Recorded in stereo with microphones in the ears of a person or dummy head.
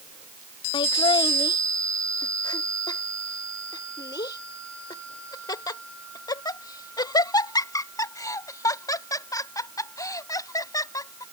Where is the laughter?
30° left (ahead or behind); by 11.2 s 20° left (ahead or behind).